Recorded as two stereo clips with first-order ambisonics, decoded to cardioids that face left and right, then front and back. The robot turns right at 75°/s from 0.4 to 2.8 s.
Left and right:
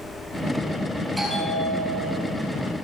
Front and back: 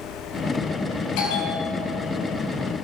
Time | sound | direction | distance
1.2 | a bell | straight ahead | 5 m